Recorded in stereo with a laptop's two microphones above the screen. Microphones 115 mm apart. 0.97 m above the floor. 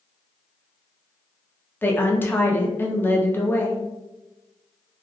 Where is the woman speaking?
15° left (ahead or behind), 0.6 m.